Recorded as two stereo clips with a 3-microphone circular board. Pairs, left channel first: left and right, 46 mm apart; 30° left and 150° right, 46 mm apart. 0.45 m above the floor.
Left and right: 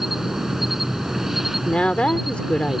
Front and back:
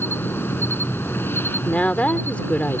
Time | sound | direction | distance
0.0 | an insect | 5° right | ?
1.6 | a woman speaking | 50° left | ?